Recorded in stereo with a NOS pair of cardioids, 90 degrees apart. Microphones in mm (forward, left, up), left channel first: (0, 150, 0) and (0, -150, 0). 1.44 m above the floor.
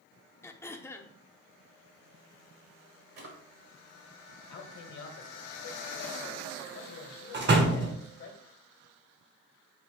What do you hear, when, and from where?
0.4 s throat clearing: 10° left, 0.5 m
3.2 s a drawer: 65° right, 1.6 m
4.5 s a man speaking: 65° left, 1.2 m
7.3 s a door slam: 40° right, 0.9 m